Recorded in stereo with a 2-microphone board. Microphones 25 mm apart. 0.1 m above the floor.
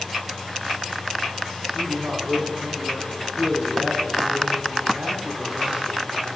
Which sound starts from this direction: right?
A man speaking, at 1.7 s.